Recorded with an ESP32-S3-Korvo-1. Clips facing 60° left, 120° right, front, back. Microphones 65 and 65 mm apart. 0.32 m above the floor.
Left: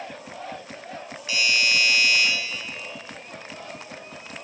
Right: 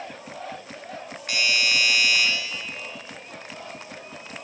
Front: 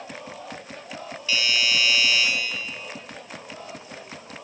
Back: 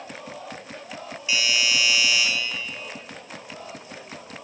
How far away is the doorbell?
About 3.5 m.